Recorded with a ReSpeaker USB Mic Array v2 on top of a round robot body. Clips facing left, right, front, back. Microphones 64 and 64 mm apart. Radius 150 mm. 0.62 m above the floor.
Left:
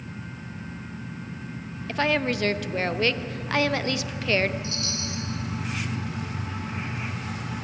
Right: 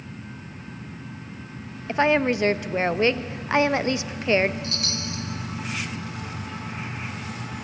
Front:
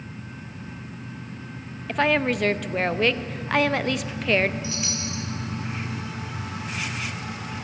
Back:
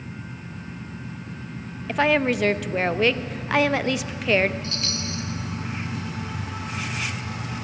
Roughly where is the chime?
Right.